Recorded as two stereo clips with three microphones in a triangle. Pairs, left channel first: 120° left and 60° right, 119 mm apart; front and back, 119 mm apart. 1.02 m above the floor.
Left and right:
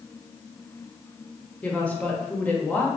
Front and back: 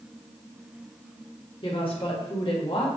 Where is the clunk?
No clunk in this recording.